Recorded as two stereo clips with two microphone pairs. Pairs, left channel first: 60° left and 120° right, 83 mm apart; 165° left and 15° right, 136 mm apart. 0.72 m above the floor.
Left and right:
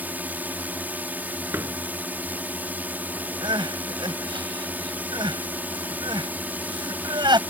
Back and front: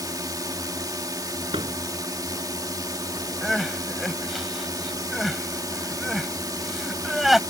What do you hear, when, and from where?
0.0 s a drone: 60° right
1.5 s a door slam: 60° right
3.4 s crying: 100° right